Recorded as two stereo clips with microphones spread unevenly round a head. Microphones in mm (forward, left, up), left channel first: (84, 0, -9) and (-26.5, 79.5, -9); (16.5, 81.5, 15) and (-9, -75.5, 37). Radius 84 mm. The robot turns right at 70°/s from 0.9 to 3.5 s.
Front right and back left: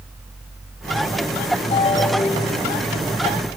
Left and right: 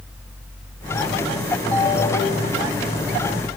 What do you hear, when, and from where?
1.7 s a ringtone: 5° left, 1.3 m; by 2.7 s 70° left, 1.3 m